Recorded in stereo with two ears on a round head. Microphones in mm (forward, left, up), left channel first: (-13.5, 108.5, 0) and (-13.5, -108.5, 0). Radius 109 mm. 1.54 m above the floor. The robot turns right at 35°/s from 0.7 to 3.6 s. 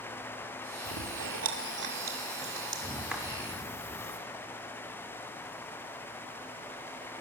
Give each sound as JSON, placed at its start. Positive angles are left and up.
{"t": 0.8, "sound": "chewing", "side_deg": -70, "distance_m": 2.0}